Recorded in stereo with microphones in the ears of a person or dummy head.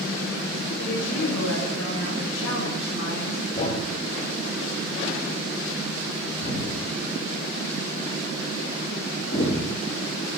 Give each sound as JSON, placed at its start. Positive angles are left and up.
{"t": 0.8, "sound": "a woman speaking", "side_deg": 80, "distance_m": 7.0}
{"t": 3.5, "sound": "a thud", "side_deg": 35, "distance_m": 9.5}